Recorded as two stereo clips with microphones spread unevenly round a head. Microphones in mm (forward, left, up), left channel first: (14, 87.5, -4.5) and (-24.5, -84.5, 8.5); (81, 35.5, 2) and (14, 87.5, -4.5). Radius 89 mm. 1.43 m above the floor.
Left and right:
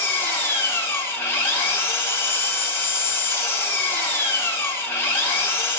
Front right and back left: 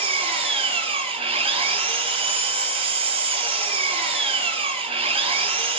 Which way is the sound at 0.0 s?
155° left.